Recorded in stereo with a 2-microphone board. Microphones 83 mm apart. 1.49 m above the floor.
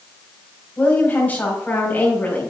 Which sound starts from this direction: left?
A woman speaking, at 0.8 s.